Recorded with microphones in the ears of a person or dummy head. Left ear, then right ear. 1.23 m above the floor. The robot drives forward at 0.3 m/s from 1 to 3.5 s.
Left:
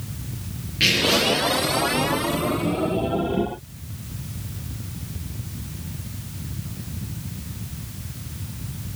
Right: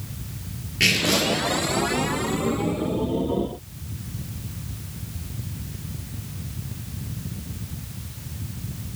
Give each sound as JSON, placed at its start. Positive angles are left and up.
{"t": 0.8, "sound": "tearing paper", "side_deg": -20, "distance_m": 6.5}